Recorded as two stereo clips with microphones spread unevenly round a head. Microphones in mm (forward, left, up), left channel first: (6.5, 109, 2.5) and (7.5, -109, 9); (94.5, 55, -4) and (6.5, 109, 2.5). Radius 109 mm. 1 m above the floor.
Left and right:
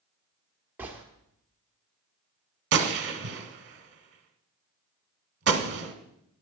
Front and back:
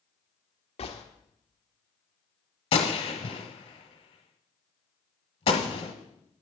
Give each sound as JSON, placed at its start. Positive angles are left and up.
{"t": 0.8, "sound": "a gunshot", "azimuth_deg": -10, "distance_m": 1.4}
{"t": 2.7, "sound": "a gunshot", "azimuth_deg": -65, "distance_m": 1.2}